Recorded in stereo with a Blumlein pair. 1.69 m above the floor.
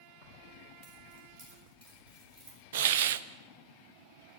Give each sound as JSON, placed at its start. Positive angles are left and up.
{"t": 0.2, "sound": "keys jangling", "azimuth_deg": -45, "distance_m": 6.0}
{"t": 2.7, "sound": "a hiss", "azimuth_deg": -55, "distance_m": 0.6}